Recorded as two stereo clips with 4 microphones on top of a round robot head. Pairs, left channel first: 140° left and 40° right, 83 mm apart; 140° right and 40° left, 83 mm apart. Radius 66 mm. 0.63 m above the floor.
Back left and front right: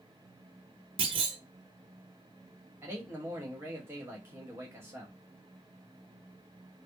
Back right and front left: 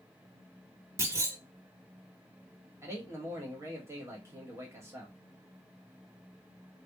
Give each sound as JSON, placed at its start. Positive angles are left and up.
{"t": 1.0, "sound": "a clunk", "azimuth_deg": -20, "distance_m": 0.8}
{"t": 2.8, "sound": "a man speaking", "azimuth_deg": 5, "distance_m": 1.4}